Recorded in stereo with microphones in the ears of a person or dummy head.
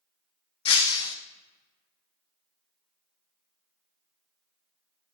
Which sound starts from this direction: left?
Breaking glass, at 0.7 s.